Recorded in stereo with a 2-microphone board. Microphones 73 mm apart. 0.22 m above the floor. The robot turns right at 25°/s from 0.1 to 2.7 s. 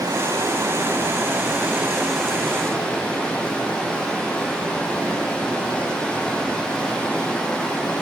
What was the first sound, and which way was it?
Running water, 55° right.